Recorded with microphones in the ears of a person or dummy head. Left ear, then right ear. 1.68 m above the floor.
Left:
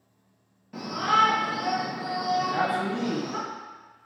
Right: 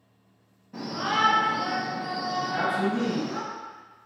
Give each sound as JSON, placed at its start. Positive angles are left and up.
{"t": 0.7, "sound": "a shout", "side_deg": 30, "distance_m": 0.7}
{"t": 2.4, "sound": "a man speaking", "side_deg": 10, "distance_m": 0.9}